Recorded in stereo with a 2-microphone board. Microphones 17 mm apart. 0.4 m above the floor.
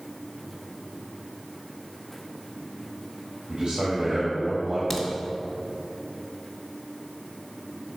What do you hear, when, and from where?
3.5 s a man speaking: 55° right (ahead or behind), 1.8 m
4.9 s a crack: 10° left (ahead or behind), 1.2 m